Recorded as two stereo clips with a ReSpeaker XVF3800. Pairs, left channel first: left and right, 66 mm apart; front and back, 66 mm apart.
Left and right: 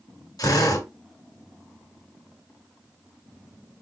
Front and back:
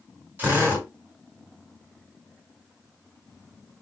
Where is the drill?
110° left, 3.5 m.